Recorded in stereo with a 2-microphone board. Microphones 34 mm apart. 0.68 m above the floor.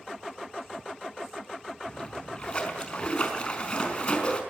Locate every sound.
1.9 s a splash: 30° left (ahead or behind), 5 m